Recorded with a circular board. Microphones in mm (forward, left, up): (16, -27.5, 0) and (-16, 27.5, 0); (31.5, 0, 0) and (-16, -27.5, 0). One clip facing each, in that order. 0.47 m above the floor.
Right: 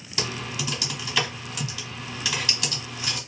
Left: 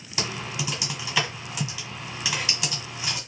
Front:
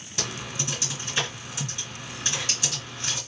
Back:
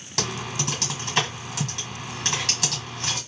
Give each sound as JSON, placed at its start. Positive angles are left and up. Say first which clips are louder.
{"t": 0.2, "sound": "typing on a keyboard", "louder": "even, back 4 dB", "azimuth_deg": -165, "distance_m": 1.6}